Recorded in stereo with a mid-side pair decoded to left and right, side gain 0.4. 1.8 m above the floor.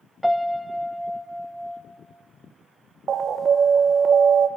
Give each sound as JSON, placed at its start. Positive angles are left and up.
{"t": 0.2, "sound": "a piano", "azimuth_deg": 0, "distance_m": 0.9}
{"t": 3.1, "sound": "an alarm", "azimuth_deg": -55, "distance_m": 0.6}